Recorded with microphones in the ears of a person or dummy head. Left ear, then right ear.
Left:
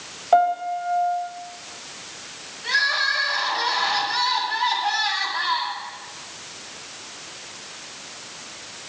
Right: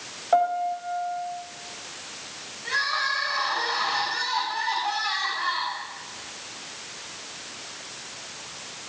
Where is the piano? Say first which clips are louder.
Left 4 dB; 20° left (ahead or behind), 2.5 m.